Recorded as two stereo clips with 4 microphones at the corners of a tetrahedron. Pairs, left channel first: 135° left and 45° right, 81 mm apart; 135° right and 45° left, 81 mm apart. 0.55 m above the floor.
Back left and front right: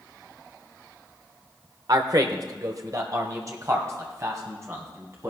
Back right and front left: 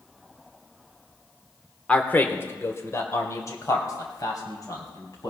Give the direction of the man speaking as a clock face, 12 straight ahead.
2 o'clock.